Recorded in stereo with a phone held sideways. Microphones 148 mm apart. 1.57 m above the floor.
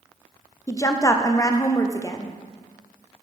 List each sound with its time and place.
0.7 s a woman speaking: 20° left (ahead or behind), 0.6 m